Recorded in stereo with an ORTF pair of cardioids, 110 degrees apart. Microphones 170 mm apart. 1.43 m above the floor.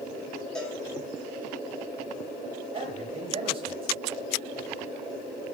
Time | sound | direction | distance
0.6 | a cowbell | 5° left | 6.5 m
2.7 | a man speaking | 35° right | 8 m